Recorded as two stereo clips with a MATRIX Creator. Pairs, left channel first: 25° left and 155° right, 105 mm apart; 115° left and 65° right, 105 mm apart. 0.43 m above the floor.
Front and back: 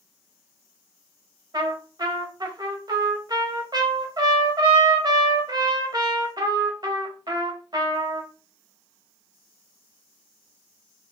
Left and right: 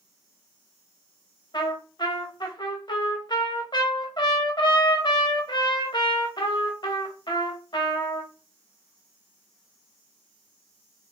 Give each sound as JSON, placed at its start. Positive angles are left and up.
{"t": 1.5, "sound": "a trumpet", "azimuth_deg": 155, "distance_m": 0.9}